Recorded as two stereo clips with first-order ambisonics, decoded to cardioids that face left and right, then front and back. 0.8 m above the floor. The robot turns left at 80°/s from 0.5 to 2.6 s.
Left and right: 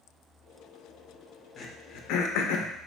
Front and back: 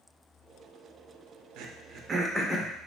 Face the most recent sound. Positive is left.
turn(degrees=75)